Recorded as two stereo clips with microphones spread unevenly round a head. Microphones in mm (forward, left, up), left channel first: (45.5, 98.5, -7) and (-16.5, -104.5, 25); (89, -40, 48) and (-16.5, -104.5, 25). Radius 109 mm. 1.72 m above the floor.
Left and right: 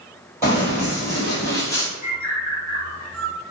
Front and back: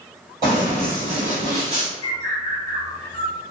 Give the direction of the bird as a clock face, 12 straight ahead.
5 o'clock.